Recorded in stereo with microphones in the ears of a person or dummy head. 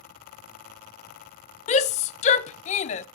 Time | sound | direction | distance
1.7 | a shout | 30° left (ahead or behind) | 0.6 m